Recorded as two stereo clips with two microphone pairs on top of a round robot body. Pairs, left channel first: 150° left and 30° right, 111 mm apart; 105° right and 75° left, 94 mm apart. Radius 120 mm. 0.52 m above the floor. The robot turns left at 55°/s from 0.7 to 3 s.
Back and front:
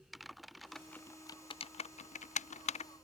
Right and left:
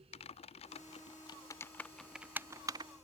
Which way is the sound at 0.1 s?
120° right.